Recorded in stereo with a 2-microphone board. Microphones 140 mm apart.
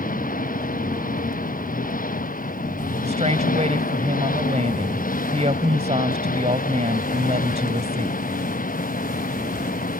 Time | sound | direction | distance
0.0 | an engine running | 80° left | ?
3.0 | a woman speaking | 55° right (ahead or behind) | ?